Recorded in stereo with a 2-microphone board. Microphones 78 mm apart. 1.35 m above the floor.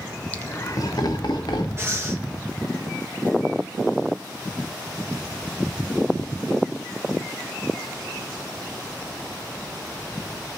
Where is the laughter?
20° left (ahead or behind), 0.8 m; by 1.7 s 70° left (ahead or behind), 1.8 m.